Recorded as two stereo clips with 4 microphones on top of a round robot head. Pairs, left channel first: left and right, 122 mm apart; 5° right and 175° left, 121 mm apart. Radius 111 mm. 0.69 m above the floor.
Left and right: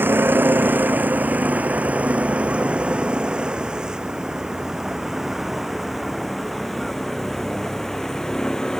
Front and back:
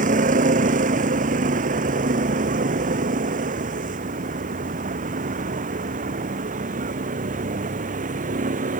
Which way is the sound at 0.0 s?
165° right.